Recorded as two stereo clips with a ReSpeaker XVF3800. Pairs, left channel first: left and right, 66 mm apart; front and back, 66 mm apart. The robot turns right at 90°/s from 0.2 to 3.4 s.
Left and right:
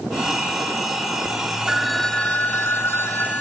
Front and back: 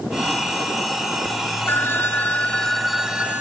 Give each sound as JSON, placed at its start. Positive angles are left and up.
{"t": 1.7, "sound": "a phone ringing", "azimuth_deg": -20, "distance_m": 1.0}